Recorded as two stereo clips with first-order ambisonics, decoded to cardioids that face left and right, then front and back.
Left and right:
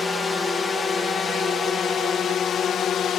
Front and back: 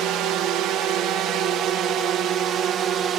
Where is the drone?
160° left; by 3.2 s 135° left.